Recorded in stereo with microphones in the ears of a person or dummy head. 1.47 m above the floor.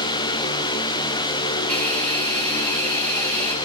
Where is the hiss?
10° left (ahead or behind), 7 m.